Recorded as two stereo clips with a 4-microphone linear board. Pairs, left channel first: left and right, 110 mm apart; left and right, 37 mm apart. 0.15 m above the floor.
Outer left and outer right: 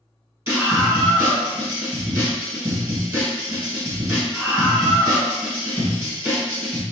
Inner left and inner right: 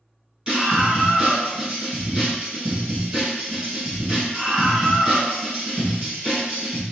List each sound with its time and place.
0.5 s a scream: 25° right (ahead or behind), 1.6 m